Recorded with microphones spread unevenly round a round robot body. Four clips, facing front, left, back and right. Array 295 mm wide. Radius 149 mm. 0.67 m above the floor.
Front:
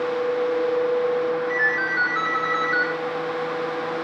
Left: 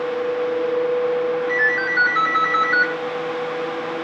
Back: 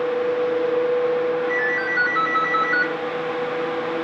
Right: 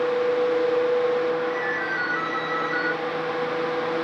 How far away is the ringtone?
About 4.5 m.